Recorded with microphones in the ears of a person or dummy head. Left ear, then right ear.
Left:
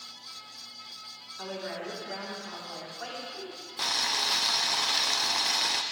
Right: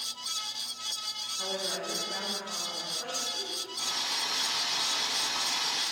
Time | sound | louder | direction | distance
1.4 | a woman speaking | even | 25° left (ahead or behind) | 3.5 m
3.8 | boiling | left 5 dB | 70° left (ahead or behind) | 0.8 m